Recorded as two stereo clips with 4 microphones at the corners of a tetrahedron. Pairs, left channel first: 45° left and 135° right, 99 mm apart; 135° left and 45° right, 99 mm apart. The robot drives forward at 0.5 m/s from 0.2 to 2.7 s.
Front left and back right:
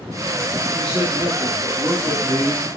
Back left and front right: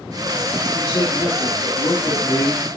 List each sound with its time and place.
0.7 s a man speaking: 160° right, 4 m; by 2.8 s 165° right, 5 m